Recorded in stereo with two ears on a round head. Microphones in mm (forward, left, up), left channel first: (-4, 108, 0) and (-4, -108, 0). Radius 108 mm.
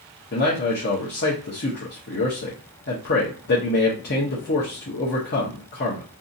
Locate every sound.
0.3 s a man speaking: 45° left (ahead or behind), 0.8 m